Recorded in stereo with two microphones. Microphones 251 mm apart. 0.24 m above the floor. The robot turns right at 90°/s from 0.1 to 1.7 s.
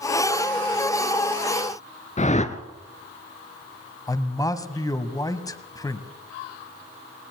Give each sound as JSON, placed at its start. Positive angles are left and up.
{"t": 2.2, "sound": "a whoosh", "side_deg": 30, "distance_m": 1.1}
{"t": 4.1, "sound": "a man speaking", "side_deg": 15, "distance_m": 1.3}